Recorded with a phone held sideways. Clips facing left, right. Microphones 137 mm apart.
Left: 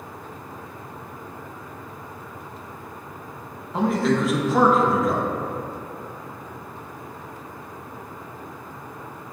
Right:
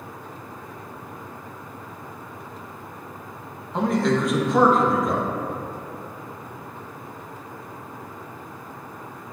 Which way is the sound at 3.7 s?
5° left (ahead or behind).